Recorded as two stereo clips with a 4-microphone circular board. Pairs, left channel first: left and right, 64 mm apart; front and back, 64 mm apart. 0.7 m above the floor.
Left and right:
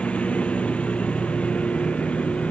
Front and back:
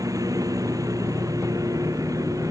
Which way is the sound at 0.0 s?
160° left.